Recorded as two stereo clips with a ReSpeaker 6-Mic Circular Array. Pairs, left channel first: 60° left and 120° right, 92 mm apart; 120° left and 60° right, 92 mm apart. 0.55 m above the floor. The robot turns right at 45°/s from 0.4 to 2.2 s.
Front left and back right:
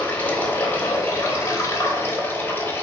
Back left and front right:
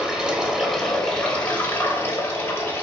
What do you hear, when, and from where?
0.0 s running water: 10° left, 1.0 m; by 2.8 s 95° left, 1.0 m